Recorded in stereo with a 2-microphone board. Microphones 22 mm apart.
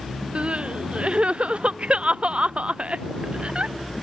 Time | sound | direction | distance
0.3 | crying | 55° right (ahead or behind) | ?